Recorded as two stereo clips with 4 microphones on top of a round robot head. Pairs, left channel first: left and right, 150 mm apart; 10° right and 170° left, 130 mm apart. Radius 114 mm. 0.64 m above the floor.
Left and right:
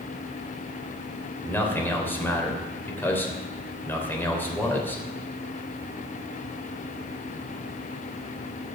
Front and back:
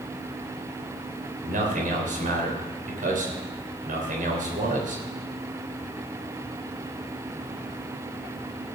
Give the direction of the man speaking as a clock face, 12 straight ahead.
6 o'clock.